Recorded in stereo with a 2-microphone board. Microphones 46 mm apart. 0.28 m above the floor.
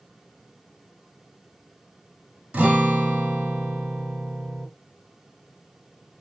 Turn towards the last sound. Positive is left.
turn(degrees=-25)  # may be behind; listen again after turning